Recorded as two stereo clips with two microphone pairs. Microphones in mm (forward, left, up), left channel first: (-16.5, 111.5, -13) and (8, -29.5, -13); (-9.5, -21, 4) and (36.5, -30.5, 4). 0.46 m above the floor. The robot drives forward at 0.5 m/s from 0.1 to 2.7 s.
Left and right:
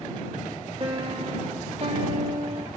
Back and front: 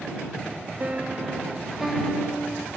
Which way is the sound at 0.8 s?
40° right.